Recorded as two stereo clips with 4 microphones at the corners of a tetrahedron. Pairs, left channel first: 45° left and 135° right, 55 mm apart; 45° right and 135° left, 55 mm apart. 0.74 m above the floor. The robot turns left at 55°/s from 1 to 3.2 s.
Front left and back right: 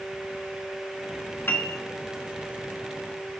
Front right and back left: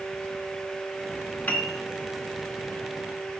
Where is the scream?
I don't hear a scream.